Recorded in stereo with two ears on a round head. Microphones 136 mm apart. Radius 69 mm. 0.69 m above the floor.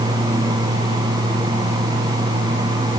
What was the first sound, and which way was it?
Only background noise.